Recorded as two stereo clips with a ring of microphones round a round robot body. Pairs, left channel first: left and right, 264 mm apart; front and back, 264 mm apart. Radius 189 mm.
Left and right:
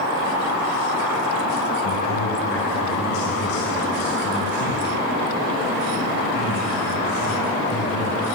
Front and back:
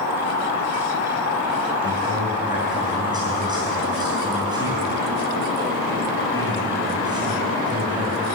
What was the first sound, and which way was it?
A man speaking, 110° left.